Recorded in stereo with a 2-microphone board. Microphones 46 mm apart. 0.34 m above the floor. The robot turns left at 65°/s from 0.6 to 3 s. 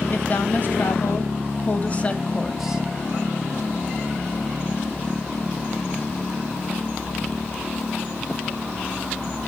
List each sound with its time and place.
0.1 s a woman speaking: 125° left, 1.7 m; by 2.8 s 20° right, 1.7 m